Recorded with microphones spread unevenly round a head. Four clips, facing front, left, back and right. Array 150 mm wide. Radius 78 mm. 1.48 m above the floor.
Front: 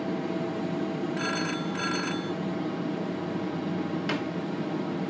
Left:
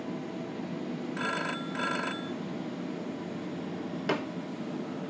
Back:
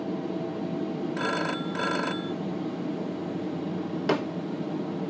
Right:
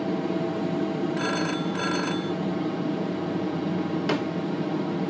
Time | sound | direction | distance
0.0 | an aircraft | 105° right | ?
1.2 | a phone ringing | 165° right | ?
4.1 | a snare drum | 165° right | ?